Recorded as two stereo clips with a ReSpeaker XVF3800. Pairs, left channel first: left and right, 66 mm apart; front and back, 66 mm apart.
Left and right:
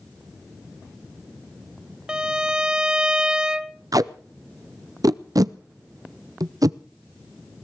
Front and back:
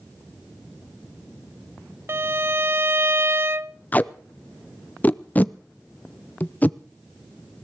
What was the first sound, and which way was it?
A violin, 160° right.